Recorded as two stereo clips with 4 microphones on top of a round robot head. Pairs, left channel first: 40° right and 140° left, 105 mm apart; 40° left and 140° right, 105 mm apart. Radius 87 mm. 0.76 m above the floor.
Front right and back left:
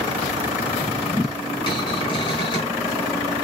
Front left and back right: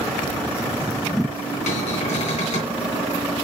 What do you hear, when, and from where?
1.7 s a cupboard door: 10° left, 3.5 m